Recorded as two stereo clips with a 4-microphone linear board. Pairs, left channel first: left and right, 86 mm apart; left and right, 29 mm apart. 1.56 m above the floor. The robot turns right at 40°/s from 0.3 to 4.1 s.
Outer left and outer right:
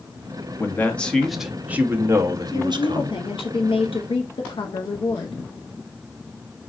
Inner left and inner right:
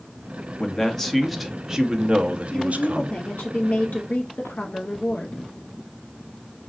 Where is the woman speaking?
40° left, 0.7 m; by 5.4 s 105° left, 0.7 m.